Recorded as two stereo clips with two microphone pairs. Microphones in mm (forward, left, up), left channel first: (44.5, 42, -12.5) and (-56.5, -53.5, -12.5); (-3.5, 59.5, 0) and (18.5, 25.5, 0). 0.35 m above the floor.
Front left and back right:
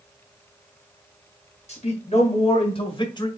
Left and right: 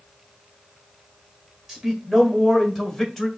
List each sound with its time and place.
1.7 s a man speaking: 25° left, 2.5 m; by 3.3 s 50° left, 1.4 m